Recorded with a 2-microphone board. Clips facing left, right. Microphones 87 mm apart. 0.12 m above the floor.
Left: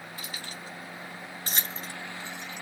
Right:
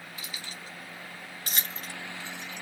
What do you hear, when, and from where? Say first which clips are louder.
0.2 s keys jangling: left 1 dB; 50° left (ahead or behind), 1.6 m; by 2.6 s 5° left (ahead or behind), 1.2 m